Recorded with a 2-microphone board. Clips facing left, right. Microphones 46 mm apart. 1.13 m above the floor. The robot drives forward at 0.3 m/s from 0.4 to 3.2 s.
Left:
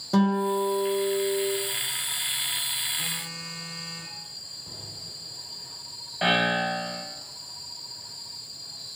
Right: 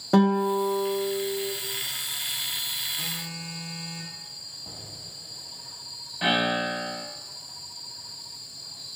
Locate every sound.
0.1 s a guitar: 30° right (ahead or behind), 0.5 m; by 1.5 s 20° right (ahead or behind), 0.8 m
3.0 s a phone buzzing: 20° right (ahead or behind), 0.8 m
4.7 s an explosion: 70° right (ahead or behind), 1.1 m
6.2 s a piano: 20° left (ahead or behind), 1.1 m